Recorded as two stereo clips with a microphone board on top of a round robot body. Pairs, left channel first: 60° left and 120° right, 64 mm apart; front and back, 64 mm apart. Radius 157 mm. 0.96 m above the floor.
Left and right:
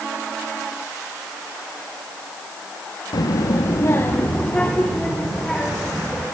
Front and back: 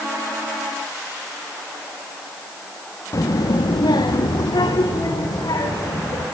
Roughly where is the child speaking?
Ahead left.